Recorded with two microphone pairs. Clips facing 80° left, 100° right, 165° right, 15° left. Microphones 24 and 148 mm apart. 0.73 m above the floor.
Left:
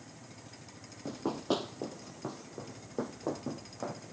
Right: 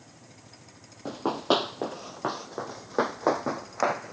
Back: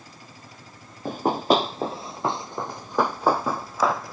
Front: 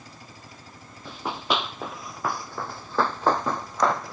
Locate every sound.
1.1 s running footsteps: 145° right; by 4.1 s 80° right